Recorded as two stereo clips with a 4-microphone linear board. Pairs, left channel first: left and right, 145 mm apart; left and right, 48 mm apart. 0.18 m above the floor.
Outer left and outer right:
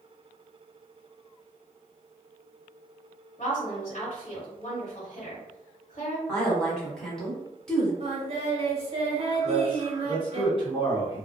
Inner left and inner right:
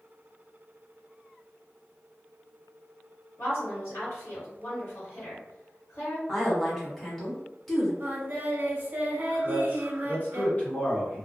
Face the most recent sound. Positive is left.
turn(degrees=35)  # may be behind; listen again after turning